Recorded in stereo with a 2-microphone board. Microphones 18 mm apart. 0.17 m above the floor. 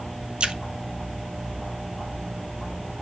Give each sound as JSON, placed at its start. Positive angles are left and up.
{"t": 0.4, "sound": "a splash", "side_deg": -75, "distance_m": 0.6}